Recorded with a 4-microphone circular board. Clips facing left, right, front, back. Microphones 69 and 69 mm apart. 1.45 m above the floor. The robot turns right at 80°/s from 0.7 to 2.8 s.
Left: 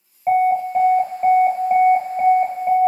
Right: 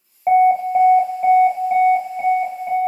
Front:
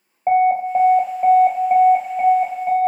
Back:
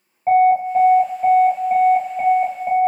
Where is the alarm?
40° right, 1.0 m; by 2.9 s 130° left, 1.0 m.